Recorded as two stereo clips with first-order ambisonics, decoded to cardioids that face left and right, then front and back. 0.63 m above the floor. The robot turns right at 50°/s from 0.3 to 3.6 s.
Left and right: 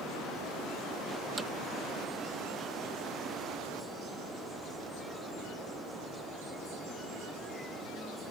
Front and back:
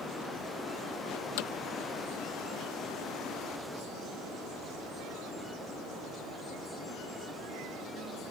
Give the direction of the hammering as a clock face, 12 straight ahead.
12 o'clock.